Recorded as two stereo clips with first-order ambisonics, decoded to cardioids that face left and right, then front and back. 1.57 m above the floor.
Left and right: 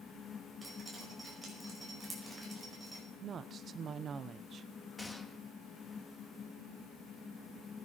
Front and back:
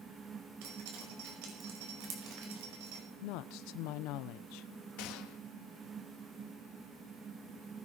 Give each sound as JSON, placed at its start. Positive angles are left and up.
{"t": 0.6, "sound": "dripping", "azimuth_deg": -175, "distance_m": 5.5}
{"t": 3.2, "sound": "a woman speaking", "azimuth_deg": -25, "distance_m": 0.9}
{"t": 5.0, "sound": "a gunshot", "azimuth_deg": 10, "distance_m": 1.5}